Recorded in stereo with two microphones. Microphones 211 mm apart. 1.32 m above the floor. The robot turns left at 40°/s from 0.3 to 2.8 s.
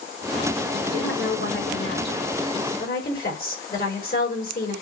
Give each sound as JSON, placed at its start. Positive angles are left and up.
{"t": 0.8, "sound": "a woman speaking", "azimuth_deg": 125, "distance_m": 3.5}